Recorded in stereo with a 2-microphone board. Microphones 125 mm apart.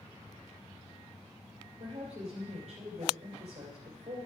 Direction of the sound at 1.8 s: 50° right (ahead or behind).